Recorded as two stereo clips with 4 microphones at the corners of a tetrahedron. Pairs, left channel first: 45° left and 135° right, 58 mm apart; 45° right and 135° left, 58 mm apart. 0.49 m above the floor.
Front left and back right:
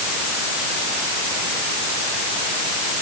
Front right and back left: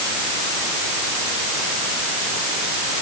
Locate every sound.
Only background noise.